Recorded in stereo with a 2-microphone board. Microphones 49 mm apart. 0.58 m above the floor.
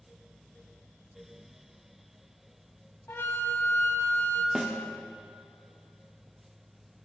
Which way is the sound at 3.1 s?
55° left (ahead or behind).